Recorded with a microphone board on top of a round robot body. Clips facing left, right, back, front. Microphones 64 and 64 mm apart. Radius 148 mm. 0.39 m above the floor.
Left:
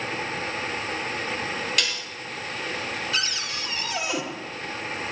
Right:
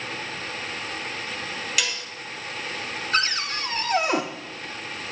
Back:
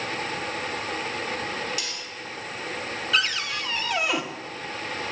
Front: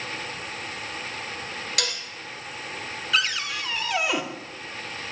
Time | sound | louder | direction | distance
1.8 | dishes clattering | even, front 4 dB | 5° right | 1.5 m
3.1 | a cupboard door | right 4 dB, even | 85° right | 1.3 m